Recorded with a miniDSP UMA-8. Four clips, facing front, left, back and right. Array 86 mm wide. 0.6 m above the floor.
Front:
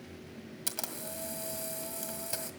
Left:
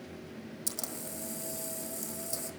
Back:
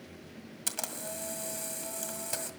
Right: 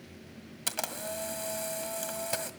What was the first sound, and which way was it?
A camera shutter, 100° right.